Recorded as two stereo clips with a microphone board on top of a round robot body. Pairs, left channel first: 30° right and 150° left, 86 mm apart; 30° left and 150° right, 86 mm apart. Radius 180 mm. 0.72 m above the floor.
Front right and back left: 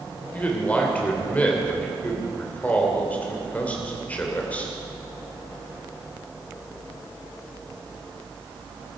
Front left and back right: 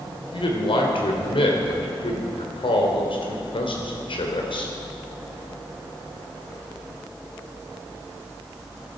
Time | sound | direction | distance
0.3 | a man speaking | 45° left | 3 m